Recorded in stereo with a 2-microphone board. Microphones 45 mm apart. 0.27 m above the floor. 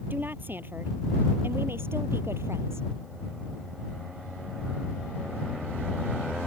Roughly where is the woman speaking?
Right.